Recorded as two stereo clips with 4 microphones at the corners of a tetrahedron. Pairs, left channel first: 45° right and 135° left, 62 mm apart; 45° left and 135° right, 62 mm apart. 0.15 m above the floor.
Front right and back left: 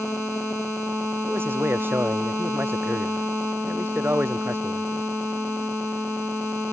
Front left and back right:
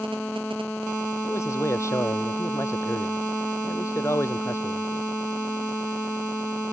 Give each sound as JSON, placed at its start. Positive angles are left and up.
{"t": 1.2, "sound": "a man speaking", "azimuth_deg": 80}